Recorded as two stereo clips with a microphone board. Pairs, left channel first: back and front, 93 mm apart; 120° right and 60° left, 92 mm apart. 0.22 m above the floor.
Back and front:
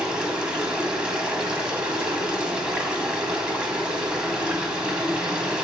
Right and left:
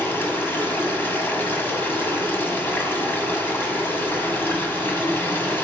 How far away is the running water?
About 1.1 m.